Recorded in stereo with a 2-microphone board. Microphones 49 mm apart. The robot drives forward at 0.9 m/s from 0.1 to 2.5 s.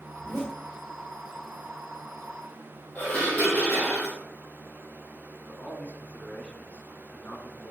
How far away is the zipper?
About 3 m.